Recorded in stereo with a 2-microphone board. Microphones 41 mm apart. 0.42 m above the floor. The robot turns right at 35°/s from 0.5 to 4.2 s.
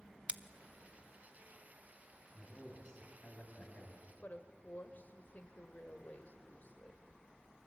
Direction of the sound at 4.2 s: 45° left (ahead or behind).